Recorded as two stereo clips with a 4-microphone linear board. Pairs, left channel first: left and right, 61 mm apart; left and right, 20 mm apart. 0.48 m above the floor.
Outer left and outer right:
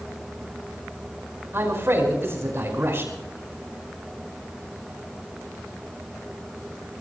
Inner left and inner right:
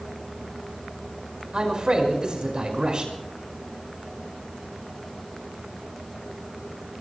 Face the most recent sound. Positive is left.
turn(degrees=-40)  # may be behind; listen again after turning